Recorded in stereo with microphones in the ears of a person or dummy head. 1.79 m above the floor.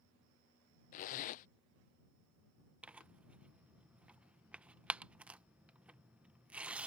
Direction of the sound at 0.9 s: 45° left (ahead or behind).